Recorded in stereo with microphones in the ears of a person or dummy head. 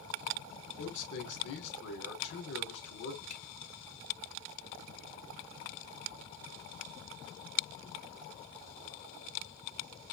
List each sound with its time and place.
0.8 s a man speaking: 60° left (ahead or behind), 2.5 m
3.3 s a finger snap: 40° left (ahead or behind), 3 m